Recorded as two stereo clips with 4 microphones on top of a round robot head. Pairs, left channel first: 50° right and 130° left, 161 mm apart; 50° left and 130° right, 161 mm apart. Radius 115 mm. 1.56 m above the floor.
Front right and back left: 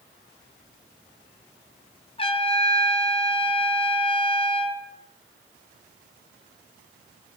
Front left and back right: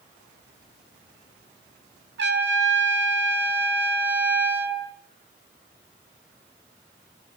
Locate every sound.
2.2 s a trumpet: 110° right, 6 m